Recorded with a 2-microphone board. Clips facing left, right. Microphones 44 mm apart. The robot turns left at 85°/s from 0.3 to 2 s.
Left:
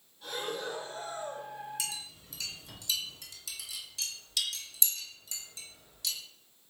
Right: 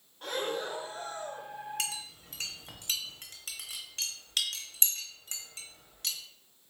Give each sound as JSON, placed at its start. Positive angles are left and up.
{"t": 0.2, "sound": "breathing", "azimuth_deg": -120, "distance_m": 0.8}
{"t": 1.8, "sound": "a clink", "side_deg": -55, "distance_m": 0.9}